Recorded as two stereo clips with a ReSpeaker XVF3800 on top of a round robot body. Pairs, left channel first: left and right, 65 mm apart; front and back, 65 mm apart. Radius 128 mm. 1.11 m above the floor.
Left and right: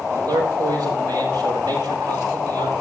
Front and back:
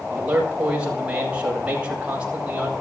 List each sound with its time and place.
0.1 s a man speaking: 105° right, 8 m